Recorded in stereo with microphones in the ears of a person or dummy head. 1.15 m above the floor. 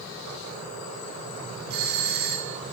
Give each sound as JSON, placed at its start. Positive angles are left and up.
{"t": 1.7, "sound": "a doorbell", "side_deg": -50, "distance_m": 1.4}